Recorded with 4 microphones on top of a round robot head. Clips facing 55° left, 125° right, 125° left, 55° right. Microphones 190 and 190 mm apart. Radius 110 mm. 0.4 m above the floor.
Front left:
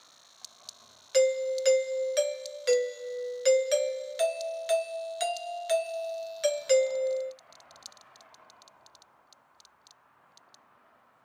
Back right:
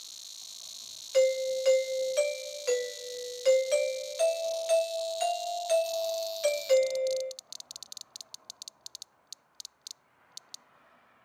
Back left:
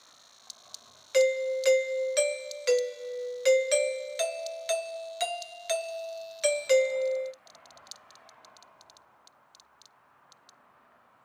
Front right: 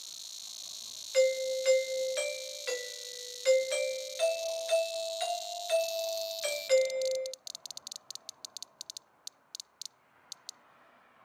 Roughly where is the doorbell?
Behind left.